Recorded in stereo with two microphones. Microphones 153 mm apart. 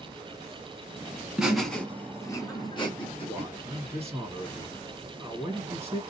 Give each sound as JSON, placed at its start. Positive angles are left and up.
{"t": 1.4, "sound": "laughter", "side_deg": -5, "distance_m": 1.1}
{"t": 3.3, "sound": "a man speaking", "side_deg": -15, "distance_m": 1.6}